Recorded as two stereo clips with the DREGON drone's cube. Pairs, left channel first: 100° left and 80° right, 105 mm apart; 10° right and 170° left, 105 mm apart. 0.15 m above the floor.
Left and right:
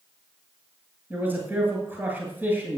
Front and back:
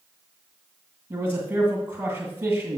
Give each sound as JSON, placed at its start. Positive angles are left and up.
{"t": 1.1, "sound": "a man speaking", "azimuth_deg": -135, "distance_m": 2.0}